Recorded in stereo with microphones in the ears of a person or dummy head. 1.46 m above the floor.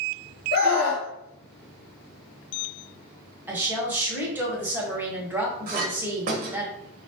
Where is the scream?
55° left (ahead or behind), 0.8 m.